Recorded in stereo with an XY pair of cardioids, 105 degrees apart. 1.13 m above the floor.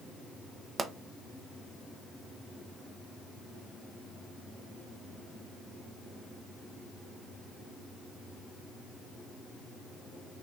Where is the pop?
35° right, 0.6 m.